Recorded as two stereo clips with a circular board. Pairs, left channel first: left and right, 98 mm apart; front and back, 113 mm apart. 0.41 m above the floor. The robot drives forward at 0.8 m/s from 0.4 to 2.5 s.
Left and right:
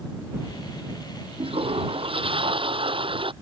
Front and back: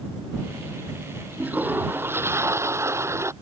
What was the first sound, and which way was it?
A toilet flushing, 105° right.